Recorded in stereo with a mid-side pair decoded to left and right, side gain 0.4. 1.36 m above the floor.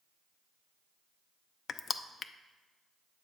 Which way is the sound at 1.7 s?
60° left.